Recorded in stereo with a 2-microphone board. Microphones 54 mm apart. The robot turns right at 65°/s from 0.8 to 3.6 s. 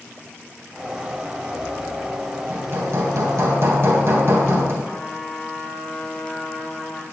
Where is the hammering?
125° right, 2 m; by 4.7 s 55° right, 2 m.